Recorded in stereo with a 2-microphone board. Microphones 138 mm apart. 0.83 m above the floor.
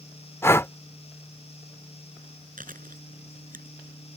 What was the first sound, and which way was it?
Breathing, 20° left (ahead or behind).